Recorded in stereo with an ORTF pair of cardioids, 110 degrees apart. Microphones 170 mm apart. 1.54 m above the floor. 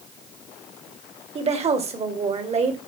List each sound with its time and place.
1.4 s a woman speaking: 40° right, 1.7 m